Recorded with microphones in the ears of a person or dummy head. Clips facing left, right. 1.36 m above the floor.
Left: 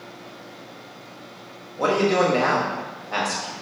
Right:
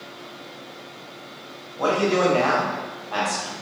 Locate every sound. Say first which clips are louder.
1.8 s a man speaking: left 1 dB; 30° left (ahead or behind), 1.0 m